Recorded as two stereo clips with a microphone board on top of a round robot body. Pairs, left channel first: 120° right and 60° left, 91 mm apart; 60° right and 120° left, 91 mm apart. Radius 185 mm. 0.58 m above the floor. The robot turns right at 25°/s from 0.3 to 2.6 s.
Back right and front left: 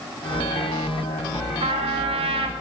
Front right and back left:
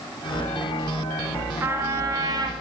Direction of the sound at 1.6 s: 55° left.